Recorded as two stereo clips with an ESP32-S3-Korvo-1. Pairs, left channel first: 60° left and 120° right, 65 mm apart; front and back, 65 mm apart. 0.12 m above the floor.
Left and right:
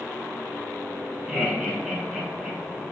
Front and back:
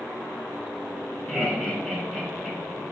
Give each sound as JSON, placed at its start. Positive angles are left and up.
{"t": 1.3, "sound": "laughter", "azimuth_deg": -90, "distance_m": 1.2}